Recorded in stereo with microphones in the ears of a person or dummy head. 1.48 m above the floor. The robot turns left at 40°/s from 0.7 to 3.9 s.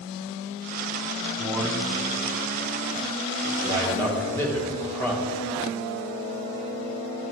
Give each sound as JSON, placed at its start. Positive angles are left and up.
{"t": 1.4, "sound": "a man speaking", "side_deg": -15, "distance_m": 1.1}
{"t": 3.6, "sound": "a man speaking", "side_deg": 20, "distance_m": 1.9}